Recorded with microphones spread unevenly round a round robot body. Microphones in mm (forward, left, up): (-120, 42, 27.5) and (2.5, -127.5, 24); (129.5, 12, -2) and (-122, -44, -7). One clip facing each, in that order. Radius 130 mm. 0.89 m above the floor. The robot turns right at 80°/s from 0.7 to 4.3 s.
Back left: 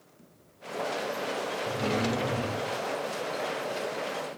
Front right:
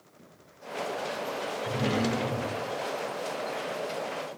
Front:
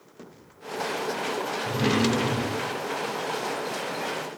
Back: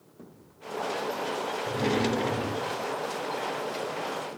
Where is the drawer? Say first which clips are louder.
Front right 2 dB, front 3 dB; 10° right, 0.5 m; by 2.8 s 85° left, 0.5 m.